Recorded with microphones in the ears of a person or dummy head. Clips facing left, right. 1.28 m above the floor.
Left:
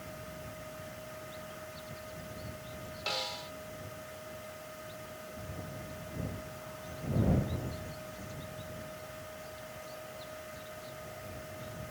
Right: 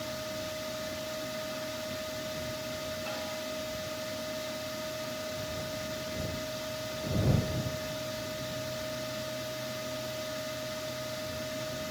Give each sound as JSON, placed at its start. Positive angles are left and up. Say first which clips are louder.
{"t": 0.0, "sound": "a fan", "louder": "right 9 dB", "side_deg": -75}
{"t": 3.1, "sound": "a snare drum", "louder": "right 4 dB", "side_deg": 55}